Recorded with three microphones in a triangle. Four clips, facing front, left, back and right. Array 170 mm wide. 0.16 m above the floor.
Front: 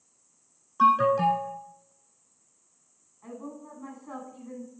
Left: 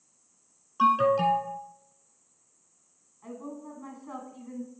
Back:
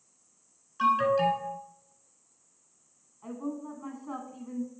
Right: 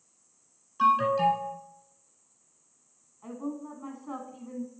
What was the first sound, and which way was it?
An alarm, 25° left.